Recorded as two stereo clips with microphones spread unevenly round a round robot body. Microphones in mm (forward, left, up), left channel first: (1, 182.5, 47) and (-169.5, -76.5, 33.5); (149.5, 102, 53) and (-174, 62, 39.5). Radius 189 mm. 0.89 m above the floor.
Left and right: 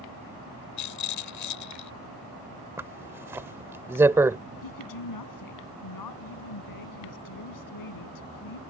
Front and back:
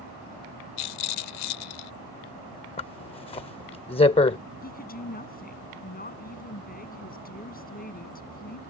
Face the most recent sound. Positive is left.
turn(degrees=70)